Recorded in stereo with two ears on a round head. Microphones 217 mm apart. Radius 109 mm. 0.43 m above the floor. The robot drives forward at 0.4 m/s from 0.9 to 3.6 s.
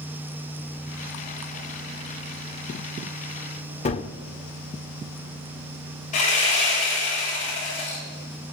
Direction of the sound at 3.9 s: 30° left (ahead or behind).